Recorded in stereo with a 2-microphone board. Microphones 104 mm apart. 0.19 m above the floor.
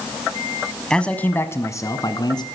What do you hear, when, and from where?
0.9 s a man speaking: 5° left (ahead or behind), 1.2 m; by 2.5 s 45° left (ahead or behind), 1.7 m